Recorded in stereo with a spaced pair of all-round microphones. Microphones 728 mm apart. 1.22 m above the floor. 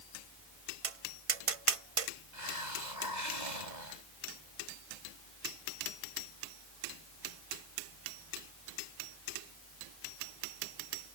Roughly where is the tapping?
Right.